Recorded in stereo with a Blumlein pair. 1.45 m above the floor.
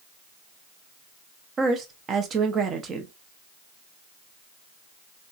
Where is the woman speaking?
25° right, 0.9 m.